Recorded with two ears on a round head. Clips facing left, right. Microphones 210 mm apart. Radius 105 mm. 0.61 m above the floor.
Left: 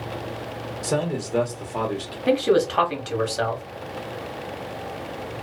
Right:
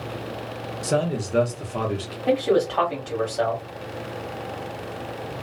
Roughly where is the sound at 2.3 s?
Left.